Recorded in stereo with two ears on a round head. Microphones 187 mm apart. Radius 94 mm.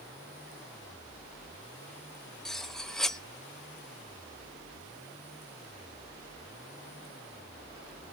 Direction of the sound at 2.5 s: Centre (ahead or behind).